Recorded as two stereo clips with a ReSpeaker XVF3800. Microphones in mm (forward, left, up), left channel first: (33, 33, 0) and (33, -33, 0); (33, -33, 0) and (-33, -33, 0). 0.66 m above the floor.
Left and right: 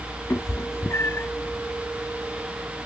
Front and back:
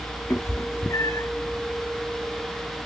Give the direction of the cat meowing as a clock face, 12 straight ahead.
11 o'clock.